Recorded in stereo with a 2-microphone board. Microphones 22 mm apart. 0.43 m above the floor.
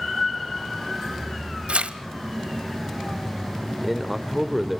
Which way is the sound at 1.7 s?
65° right (ahead or behind).